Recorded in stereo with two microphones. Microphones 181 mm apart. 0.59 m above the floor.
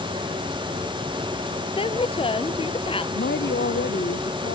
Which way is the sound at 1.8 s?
30° left (ahead or behind).